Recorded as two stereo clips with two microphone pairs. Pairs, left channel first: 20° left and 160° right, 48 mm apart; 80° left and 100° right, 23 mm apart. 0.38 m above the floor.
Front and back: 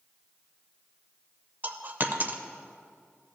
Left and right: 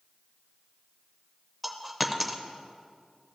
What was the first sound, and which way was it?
A dropped coin, 175° left.